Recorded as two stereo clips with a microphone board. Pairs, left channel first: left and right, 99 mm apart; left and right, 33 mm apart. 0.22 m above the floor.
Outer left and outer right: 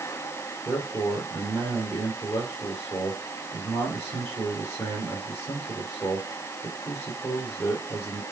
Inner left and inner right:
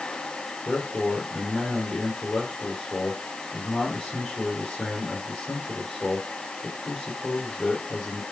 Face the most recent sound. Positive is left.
turn(degrees=30)  # may be behind; listen again after turning